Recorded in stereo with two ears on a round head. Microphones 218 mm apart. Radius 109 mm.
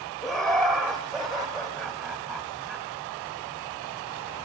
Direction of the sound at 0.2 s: Centre (ahead or behind).